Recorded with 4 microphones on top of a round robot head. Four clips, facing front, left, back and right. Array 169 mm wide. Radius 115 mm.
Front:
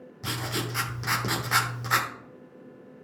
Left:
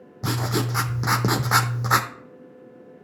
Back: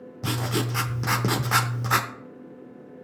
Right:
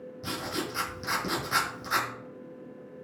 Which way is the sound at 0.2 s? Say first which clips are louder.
Left 8 dB, back 5 dB; 115° left.